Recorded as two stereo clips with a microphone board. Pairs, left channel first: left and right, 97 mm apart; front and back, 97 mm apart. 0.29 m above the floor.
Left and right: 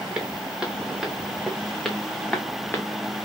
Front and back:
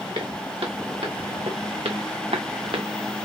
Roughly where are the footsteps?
Behind.